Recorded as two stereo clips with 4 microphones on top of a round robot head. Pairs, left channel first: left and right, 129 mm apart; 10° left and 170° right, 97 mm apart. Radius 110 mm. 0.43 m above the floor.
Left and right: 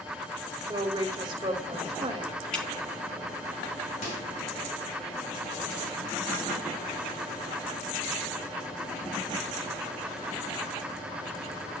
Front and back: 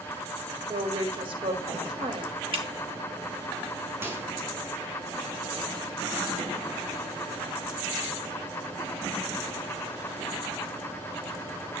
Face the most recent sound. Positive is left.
turn(degrees=125)